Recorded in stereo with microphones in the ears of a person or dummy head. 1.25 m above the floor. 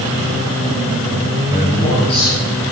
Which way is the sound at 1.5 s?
35° left (ahead or behind).